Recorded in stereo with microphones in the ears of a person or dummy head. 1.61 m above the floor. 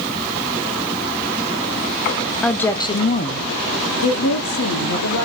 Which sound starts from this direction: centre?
A woman speaking, at 2.4 s.